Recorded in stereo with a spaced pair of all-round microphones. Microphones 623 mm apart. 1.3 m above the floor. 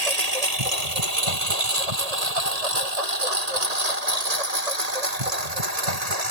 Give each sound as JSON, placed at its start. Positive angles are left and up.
{"t": 0.0, "sound": "a lawn mower", "side_deg": -75}